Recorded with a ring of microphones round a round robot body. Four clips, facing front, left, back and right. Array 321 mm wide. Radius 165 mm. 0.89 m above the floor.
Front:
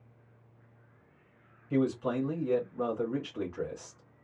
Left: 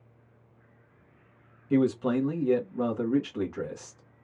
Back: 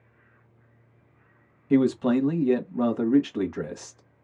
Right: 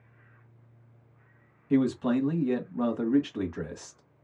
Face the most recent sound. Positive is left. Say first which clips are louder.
# even, back 8 dB
turn(degrees=180)